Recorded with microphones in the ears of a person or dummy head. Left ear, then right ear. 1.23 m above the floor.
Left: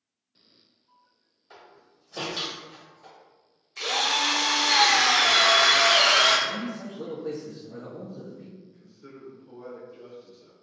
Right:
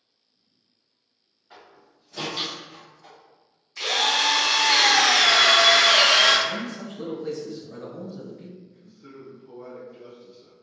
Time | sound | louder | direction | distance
1.5 | a door slam | right 1 dB | 30° left (ahead or behind) | 1.2 m
3.8 | a drill | right 3 dB | centre (ahead or behind) | 0.6 m
6.5 | a man speaking | right 2 dB | 40° right (ahead or behind) | 1.1 m
8.6 | a man speaking | right 1 dB | 10° left (ahead or behind) | 0.7 m